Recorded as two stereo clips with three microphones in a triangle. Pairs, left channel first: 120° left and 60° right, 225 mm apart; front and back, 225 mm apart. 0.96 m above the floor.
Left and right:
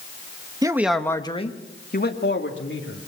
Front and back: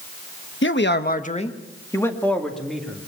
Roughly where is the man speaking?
Ahead.